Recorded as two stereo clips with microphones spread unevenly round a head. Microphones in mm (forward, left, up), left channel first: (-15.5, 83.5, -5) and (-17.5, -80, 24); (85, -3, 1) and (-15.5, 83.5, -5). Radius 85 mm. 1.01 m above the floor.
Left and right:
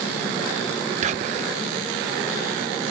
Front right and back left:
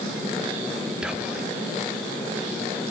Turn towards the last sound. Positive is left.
turn(degrees=-140)